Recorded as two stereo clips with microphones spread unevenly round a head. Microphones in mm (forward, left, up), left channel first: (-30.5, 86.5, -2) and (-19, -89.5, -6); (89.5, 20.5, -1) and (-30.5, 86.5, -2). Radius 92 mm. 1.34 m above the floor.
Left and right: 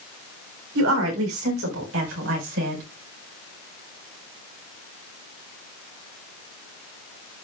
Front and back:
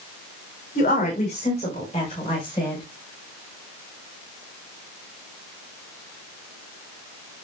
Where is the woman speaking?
80° right, 5 m; by 2.8 s 100° right, 6 m.